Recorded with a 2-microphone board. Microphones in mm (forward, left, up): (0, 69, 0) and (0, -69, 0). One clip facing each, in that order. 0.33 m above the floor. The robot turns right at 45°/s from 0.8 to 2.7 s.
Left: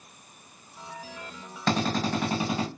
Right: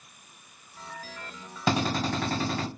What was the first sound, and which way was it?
A drill, 10° right.